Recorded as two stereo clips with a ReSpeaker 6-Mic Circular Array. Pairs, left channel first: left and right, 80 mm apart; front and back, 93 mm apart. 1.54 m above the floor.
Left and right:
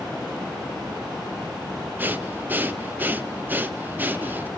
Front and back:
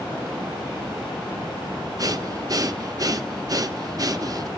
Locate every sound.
2.0 s breathing: 150° right, 0.9 m